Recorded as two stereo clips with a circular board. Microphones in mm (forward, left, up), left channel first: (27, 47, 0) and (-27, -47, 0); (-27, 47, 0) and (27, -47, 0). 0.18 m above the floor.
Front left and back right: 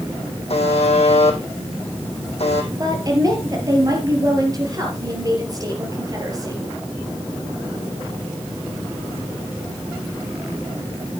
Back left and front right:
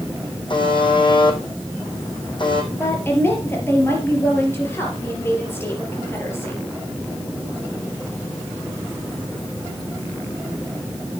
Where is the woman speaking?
175° right, 3.5 m.